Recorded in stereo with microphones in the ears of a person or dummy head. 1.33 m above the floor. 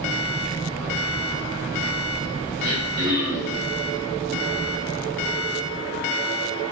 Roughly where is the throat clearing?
Right.